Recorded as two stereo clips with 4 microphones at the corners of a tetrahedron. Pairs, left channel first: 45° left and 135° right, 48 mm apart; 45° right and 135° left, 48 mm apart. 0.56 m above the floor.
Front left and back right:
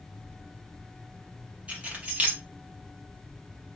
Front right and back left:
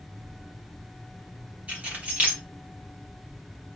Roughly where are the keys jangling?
Behind.